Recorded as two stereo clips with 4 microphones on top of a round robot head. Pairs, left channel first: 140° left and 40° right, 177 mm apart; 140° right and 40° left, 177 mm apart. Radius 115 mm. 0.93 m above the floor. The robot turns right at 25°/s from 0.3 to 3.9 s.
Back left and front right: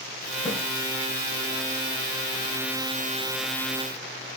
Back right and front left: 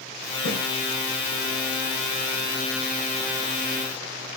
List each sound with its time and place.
0.5 s a snare drum: 160° right, 7.5 m; by 0.6 s 155° right, 7.5 m